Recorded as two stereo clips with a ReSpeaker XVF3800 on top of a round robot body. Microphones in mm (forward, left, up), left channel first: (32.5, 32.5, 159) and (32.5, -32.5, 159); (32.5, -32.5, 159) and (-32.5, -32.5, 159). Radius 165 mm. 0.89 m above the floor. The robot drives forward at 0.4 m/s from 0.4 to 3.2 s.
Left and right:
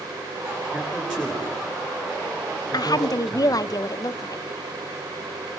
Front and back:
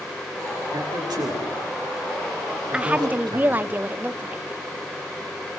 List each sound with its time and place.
0.7 s a man speaking: 170° right, 9 m; by 3.6 s 175° right, 10 m
2.7 s a woman speaking: 105° left, 0.8 m; by 4.4 s 120° left, 0.8 m